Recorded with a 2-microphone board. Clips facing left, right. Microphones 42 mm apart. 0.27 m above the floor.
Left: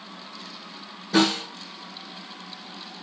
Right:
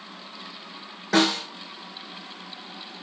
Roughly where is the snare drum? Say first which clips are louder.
Even; right.